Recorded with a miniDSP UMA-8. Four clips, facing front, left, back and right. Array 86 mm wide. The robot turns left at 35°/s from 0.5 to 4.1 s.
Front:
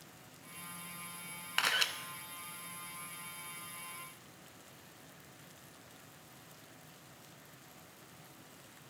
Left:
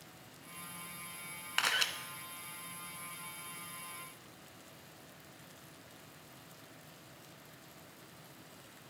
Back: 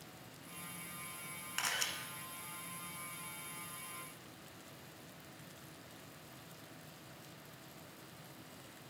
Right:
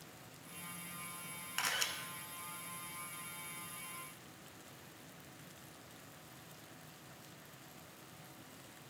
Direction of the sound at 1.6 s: 40° left.